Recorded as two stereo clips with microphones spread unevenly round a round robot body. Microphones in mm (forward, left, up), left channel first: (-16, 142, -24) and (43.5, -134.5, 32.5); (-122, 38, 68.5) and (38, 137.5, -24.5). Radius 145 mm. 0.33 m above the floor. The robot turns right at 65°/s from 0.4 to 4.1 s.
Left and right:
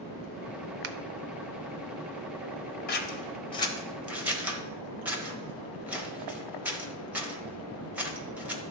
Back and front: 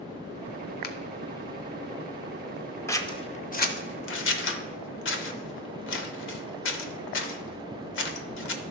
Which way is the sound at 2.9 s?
105° left.